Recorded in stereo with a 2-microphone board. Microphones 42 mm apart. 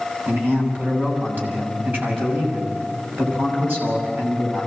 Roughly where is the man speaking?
Right.